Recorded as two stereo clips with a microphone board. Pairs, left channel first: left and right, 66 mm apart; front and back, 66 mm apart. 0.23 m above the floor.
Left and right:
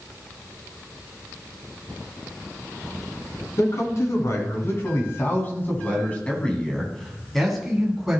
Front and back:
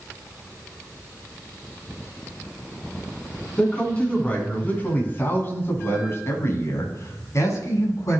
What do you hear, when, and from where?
3.6 s a man speaking: 70° left, 2.5 m; by 8.2 s 10° right, 2.5 m